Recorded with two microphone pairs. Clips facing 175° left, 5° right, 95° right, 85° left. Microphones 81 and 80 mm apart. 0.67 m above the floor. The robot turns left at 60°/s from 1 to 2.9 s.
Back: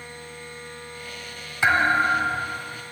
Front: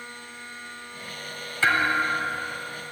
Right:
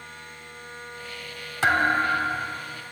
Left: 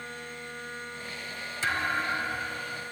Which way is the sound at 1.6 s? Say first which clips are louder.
Back 3 dB, right 8 dB; 115° right.